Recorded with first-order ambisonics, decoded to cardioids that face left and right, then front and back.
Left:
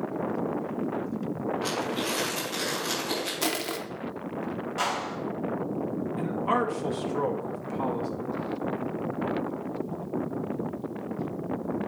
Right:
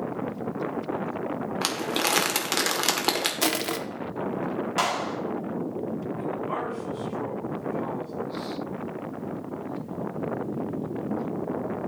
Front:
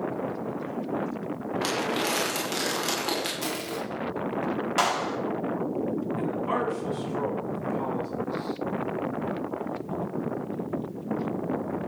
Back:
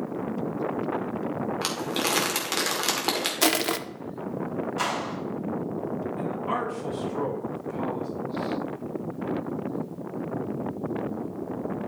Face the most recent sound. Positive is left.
turn(degrees=90)